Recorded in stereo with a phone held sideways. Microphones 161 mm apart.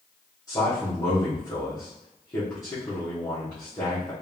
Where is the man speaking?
20° left (ahead or behind), 1.4 m.